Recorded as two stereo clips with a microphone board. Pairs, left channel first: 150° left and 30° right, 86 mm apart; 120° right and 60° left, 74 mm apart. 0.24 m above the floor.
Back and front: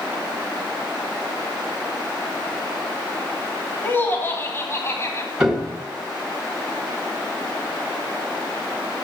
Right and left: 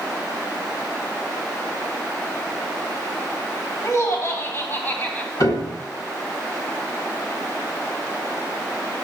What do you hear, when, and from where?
3.8 s laughter: 150° right, 2 m; by 5.3 s straight behind, 1.7 m
5.4 s a piano: 110° right, 2.5 m